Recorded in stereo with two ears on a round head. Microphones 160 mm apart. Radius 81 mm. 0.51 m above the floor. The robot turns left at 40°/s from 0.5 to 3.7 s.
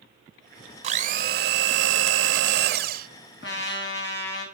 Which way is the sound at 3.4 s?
75° left (ahead or behind).